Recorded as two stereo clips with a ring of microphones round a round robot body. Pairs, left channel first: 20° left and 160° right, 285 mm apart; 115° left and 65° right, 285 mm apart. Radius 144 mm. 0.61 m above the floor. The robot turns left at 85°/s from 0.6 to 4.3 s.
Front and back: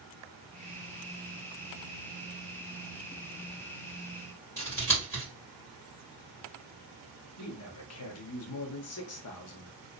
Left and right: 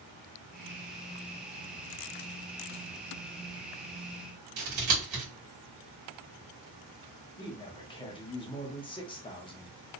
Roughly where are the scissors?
Ahead right.